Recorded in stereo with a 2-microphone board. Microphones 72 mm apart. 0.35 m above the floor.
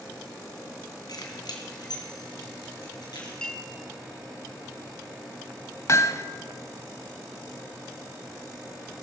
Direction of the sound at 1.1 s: 65° left (ahead or behind).